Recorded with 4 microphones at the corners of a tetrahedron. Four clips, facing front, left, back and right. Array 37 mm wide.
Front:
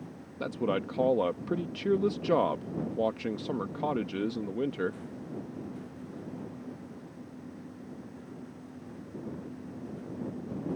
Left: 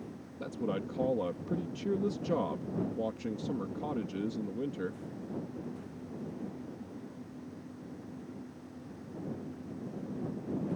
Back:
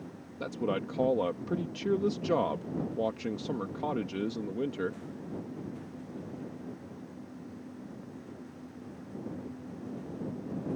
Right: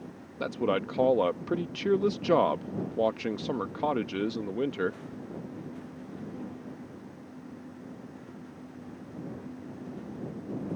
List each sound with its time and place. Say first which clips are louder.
0.4 s a man speaking: right 7 dB, front 2 dB; 75° right